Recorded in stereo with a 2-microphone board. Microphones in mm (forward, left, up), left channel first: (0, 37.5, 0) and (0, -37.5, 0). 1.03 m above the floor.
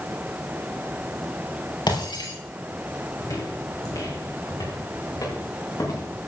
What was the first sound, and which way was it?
Breaking glass, 80° left.